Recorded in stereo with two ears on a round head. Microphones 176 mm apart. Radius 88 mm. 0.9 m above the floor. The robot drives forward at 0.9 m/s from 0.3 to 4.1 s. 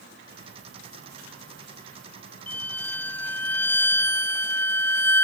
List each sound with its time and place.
2.5 s a violin: 10° left (ahead or behind)